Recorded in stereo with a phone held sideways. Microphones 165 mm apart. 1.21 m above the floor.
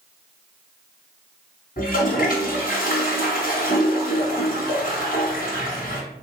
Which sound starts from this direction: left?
A toilet flushing, at 1.8 s.